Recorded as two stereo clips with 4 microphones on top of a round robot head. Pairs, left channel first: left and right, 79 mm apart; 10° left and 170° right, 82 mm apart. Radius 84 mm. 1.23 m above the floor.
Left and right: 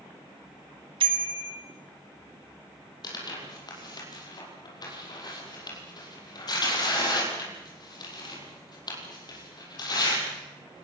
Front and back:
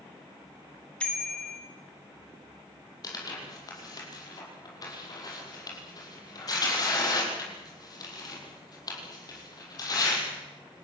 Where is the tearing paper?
55° left, 7 m.